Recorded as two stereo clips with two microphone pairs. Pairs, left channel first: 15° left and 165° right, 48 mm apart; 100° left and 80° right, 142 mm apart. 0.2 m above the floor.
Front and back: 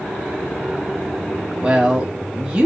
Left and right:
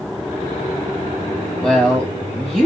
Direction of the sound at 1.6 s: Straight behind.